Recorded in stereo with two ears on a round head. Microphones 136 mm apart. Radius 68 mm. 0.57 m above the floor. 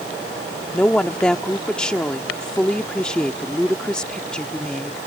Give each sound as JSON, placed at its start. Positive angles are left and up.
{"t": 0.7, "sound": "a woman speaking", "side_deg": 5}